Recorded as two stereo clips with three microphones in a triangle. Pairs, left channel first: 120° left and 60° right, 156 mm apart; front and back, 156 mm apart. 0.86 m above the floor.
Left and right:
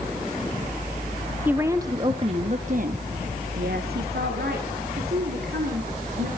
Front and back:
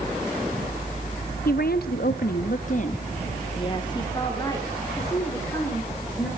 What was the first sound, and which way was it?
A woman speaking, 20° left.